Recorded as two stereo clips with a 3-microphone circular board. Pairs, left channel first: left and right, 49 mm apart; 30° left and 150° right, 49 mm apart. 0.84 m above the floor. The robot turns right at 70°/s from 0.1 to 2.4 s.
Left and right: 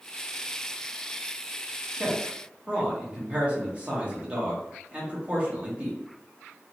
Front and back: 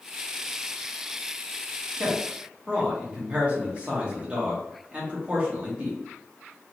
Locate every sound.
2.0 s a man speaking: 150° right, 1.0 m; by 6.0 s 120° right, 1.0 m